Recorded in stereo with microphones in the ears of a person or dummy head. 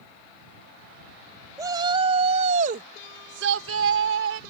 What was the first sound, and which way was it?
A shout, 20° right (ahead or behind).